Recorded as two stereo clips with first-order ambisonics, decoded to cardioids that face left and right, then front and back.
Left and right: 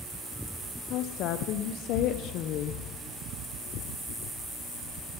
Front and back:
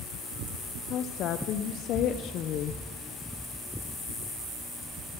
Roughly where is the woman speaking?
Ahead left.